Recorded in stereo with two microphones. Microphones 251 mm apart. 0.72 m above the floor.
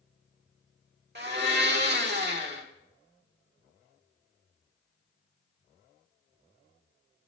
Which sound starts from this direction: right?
A blender, at 1.1 s.